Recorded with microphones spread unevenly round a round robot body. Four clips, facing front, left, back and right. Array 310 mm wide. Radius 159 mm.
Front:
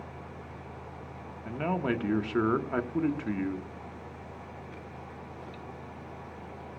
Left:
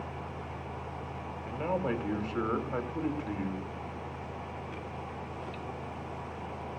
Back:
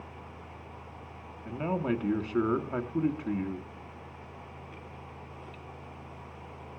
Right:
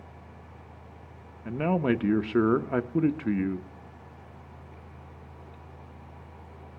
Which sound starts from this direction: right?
A man speaking, at 1.4 s.